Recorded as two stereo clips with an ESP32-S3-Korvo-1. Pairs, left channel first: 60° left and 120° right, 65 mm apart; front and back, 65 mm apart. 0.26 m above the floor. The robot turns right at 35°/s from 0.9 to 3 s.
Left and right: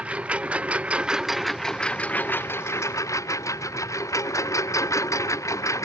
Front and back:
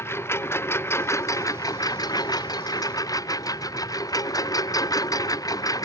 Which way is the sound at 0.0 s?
50° right.